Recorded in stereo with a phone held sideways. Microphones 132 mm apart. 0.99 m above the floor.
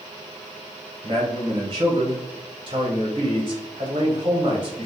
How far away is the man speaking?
About 0.7 m.